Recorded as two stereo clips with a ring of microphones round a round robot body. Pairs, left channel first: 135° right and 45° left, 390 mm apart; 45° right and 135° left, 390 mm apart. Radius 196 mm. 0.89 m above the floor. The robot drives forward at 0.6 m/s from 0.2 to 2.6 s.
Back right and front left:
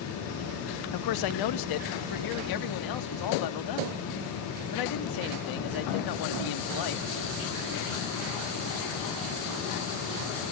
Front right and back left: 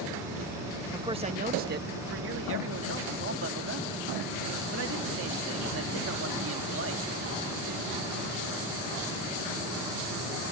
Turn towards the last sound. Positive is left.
turn(degrees=-170)